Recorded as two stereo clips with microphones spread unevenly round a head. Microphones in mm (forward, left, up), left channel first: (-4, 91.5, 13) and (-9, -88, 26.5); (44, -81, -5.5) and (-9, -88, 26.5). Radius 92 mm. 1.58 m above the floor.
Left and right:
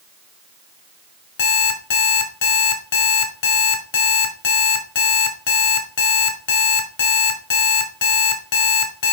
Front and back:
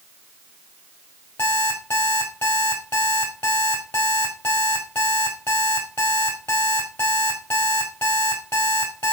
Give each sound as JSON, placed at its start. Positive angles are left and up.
{"t": 1.4, "sound": "an alarm clock", "azimuth_deg": 105, "distance_m": 1.6}